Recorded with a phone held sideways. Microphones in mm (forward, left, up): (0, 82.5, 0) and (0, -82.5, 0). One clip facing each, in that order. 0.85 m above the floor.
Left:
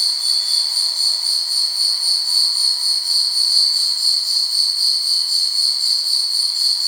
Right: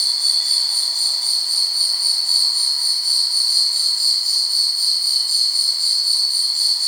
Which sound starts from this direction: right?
An insect, at 0.0 s.